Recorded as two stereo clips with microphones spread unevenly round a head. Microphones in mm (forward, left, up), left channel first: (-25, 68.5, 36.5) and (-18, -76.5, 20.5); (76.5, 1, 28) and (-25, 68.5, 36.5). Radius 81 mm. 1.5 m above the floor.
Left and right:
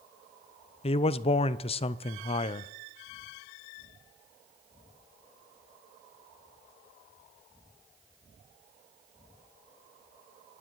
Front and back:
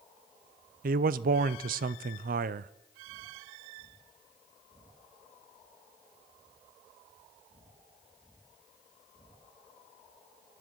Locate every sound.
0.8 s a man speaking: 145° left, 0.5 m